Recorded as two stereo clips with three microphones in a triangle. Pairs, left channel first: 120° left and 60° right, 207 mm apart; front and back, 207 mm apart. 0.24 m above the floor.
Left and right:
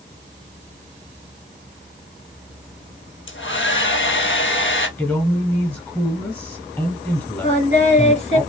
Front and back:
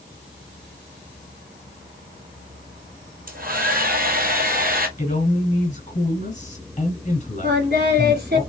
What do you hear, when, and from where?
3.3 s a hair dryer: 140° left, 1.0 m
5.0 s a man speaking: 35° left, 1.5 m
7.4 s singing: 165° left, 1.7 m